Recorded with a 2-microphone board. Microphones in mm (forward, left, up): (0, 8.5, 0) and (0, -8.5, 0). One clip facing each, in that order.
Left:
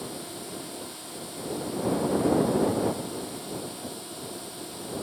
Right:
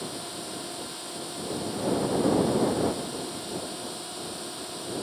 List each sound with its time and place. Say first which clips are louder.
0.0 s a drone: right 2 dB; 10° right (ahead or behind)